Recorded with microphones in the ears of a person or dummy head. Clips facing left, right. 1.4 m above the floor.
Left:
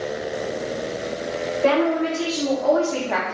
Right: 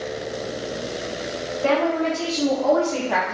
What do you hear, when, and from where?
1.6 s a woman speaking: 40° left (ahead or behind), 1.3 m; by 3.3 s 15° right (ahead or behind), 0.6 m